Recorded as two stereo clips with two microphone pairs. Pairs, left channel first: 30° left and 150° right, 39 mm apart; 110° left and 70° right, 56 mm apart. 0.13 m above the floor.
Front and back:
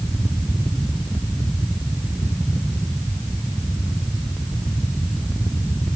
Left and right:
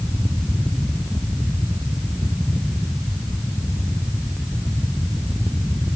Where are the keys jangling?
No keys jangling in this recording.